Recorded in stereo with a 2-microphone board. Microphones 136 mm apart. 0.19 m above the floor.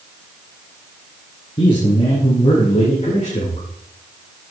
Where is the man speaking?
40° left (ahead or behind), 3 m; by 3.7 s 55° left (ahead or behind), 4 m.